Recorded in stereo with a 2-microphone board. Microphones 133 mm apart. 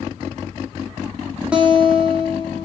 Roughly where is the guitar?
Centre.